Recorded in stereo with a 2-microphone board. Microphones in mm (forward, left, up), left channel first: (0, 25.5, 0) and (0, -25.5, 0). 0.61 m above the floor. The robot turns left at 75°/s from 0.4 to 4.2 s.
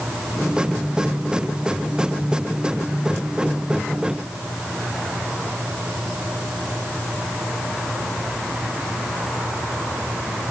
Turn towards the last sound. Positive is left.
No sound to turn to.